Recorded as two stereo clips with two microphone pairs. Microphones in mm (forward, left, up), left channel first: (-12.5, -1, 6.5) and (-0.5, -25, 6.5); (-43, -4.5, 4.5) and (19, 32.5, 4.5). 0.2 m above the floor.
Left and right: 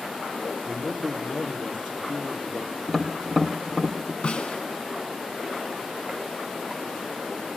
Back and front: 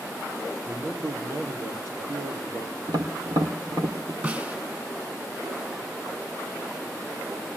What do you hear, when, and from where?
0.7 s a man speaking: 20° left, 5 m
2.9 s tapping: 30° left, 3 m
4.2 s a snare drum: 90° left, 1.2 m